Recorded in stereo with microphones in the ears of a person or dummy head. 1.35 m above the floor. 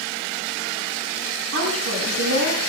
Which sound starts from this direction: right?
A woman speaking, at 1.5 s.